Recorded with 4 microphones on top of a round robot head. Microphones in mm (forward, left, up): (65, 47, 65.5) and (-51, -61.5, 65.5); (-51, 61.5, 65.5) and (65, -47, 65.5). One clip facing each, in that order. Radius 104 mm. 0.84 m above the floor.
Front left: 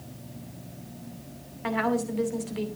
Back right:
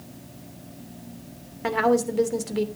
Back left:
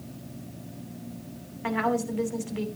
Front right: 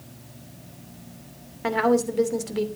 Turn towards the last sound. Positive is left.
turn(degrees=-95)